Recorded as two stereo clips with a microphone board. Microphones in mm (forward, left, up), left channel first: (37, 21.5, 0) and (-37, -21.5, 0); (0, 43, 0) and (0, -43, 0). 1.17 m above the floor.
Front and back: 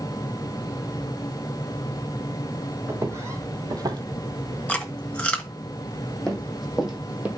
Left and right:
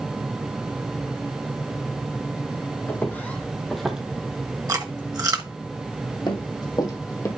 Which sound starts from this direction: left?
Running footsteps, at 6.3 s.